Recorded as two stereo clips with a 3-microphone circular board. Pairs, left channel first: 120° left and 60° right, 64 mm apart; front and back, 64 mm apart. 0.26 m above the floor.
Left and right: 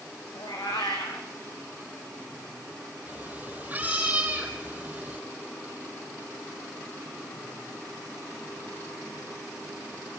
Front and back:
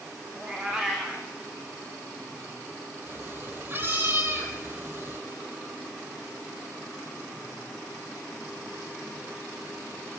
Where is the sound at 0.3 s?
100° left, 4 m.